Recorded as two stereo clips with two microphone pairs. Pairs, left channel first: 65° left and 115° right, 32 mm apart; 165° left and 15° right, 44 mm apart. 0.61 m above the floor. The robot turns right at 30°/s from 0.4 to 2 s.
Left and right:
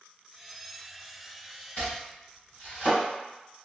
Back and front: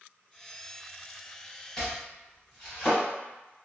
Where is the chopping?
90° left, 1.5 m; by 3.0 s 100° left, 1.5 m.